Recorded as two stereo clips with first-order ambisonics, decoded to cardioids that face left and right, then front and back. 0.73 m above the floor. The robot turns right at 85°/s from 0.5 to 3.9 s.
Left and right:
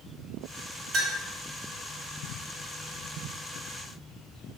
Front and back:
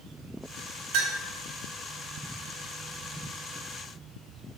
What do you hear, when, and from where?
0.9 s a clink: 160° right, 3.5 m; by 1.2 s 140° right, 3.5 m